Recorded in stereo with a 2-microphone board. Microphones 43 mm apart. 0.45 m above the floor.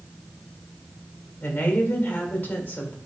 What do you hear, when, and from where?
1.4 s a woman speaking: 45° left (ahead or behind), 1.3 m